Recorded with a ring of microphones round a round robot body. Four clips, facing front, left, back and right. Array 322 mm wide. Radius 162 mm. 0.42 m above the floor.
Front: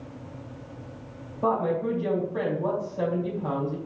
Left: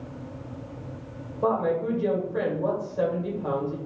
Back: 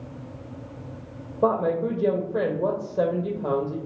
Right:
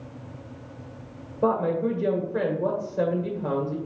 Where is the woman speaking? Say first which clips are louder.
Right 1 dB, back 3 dB; 155° right, 1.9 m.